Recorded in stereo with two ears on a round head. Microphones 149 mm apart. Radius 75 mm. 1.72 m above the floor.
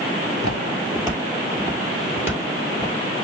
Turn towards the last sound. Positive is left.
turn(degrees=-5)  # may be behind; listen again after turning